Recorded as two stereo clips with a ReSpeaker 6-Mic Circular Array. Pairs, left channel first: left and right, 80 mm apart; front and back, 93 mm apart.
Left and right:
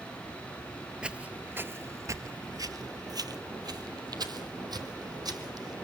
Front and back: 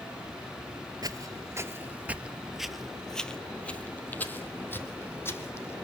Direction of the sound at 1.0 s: 160° right.